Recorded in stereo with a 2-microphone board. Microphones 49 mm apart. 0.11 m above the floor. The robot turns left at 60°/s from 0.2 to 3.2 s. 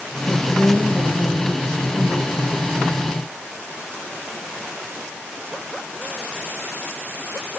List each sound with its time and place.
0.3 s a woman speaking: 5° right, 4 m; by 2.4 s 130° right, 4 m